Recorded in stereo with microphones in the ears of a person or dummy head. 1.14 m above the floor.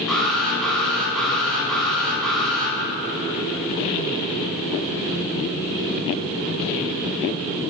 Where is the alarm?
5° left (ahead or behind), 8 m.